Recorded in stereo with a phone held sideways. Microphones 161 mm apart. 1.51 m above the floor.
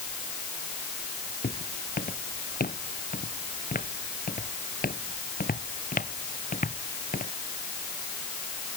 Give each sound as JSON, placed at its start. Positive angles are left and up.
{"t": 1.4, "sound": "footsteps", "side_deg": 70}